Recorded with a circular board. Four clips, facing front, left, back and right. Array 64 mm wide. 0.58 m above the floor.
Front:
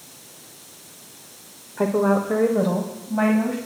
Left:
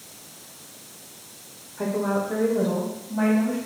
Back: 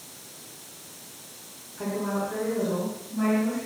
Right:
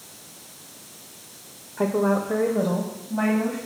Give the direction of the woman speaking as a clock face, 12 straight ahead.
1 o'clock.